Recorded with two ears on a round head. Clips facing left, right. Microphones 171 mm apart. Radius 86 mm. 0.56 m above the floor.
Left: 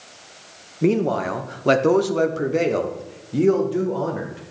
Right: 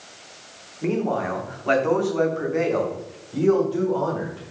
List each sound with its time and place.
0.8 s a man speaking: 40° left (ahead or behind), 1.1 m; by 4.4 s 20° left (ahead or behind), 1.8 m